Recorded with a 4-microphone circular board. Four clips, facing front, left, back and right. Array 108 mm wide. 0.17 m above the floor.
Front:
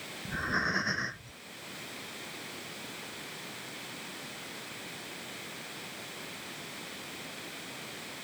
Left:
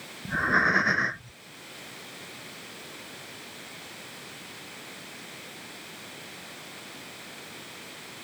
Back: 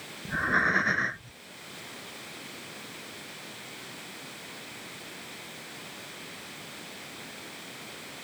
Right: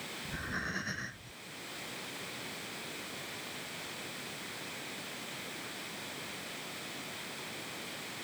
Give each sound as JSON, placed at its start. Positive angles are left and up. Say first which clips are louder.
{"t": 0.2, "sound": "breathing", "louder": "left 16 dB, back 6 dB", "azimuth_deg": 110}